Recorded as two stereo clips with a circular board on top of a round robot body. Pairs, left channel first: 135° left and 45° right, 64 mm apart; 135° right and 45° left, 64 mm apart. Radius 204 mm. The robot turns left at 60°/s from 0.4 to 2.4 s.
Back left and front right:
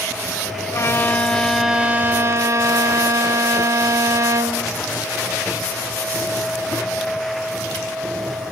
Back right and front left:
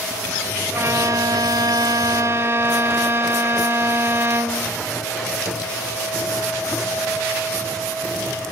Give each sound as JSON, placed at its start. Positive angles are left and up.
{"t": 0.7, "sound": "a violin", "azimuth_deg": 95, "distance_m": 1.2}